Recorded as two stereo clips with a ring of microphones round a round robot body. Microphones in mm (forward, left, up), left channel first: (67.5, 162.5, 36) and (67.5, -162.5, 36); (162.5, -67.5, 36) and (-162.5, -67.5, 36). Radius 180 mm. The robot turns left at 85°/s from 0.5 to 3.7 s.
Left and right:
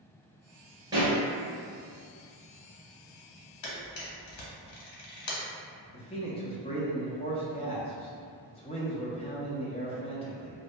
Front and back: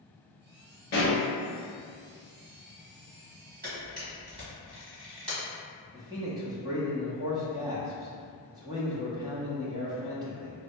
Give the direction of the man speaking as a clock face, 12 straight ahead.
8 o'clock.